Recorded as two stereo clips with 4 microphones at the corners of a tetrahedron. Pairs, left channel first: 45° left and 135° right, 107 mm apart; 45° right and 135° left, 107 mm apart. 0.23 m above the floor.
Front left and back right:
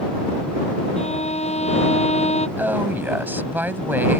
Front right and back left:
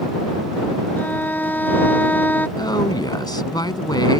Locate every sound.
1.0 s a violin: 30° left
2.6 s a woman speaking: 70° right